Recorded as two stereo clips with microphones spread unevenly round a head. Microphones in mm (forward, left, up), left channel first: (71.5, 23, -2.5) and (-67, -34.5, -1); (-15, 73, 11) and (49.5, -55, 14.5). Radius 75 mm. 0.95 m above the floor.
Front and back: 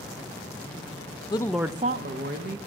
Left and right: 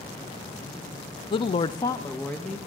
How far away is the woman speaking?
About 0.6 m.